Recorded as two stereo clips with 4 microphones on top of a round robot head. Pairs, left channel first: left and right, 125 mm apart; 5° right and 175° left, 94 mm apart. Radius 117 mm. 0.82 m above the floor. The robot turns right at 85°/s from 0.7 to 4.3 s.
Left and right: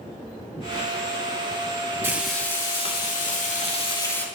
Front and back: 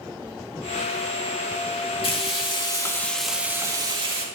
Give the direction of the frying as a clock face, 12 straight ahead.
1 o'clock.